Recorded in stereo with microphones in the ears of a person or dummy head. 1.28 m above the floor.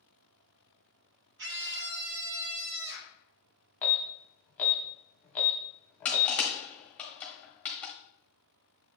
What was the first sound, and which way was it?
A scream, 65° right (ahead or behind).